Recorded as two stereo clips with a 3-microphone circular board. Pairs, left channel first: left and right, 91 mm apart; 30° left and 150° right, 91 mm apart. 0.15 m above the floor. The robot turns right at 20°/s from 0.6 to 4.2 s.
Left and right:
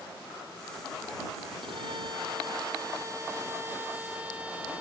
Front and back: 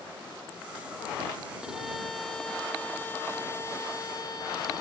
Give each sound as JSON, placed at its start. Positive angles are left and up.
{"t": 1.6, "sound": "a violin", "azimuth_deg": -70}